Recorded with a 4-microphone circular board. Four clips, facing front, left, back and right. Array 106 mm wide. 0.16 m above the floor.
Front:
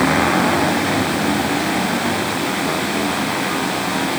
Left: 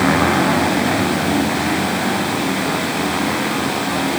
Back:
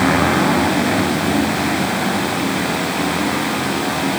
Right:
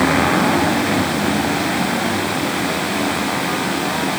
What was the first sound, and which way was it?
Only background noise.